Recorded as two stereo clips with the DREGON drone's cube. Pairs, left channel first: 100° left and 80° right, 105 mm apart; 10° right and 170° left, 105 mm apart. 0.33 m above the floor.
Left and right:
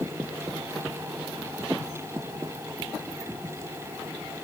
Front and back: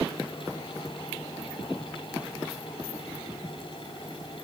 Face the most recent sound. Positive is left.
No sound to turn to.